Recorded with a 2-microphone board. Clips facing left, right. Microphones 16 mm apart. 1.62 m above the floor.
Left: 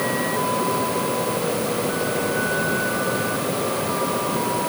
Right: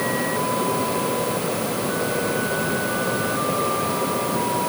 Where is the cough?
I don't hear a cough.